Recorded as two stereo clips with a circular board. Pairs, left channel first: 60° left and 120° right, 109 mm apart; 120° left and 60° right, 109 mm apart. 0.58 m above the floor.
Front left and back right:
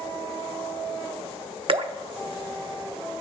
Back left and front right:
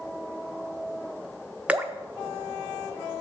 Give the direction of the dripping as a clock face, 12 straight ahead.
5 o'clock.